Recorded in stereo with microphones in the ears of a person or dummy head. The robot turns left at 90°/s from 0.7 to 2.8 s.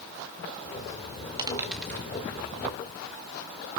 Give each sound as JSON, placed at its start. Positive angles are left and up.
{"t": 1.4, "sound": "a dropped coin", "side_deg": -20, "distance_m": 1.4}